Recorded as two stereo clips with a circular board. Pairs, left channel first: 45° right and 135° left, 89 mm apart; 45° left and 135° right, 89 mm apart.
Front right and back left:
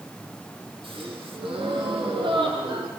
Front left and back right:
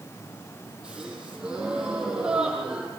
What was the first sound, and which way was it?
A gasp, 145° left.